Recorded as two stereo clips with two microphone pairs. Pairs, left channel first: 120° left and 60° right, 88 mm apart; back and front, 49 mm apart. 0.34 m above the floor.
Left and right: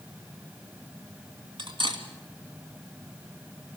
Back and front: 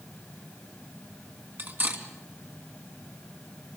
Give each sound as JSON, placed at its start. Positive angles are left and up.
{"t": 1.6, "sound": "cutlery clinking", "azimuth_deg": -50, "distance_m": 2.0}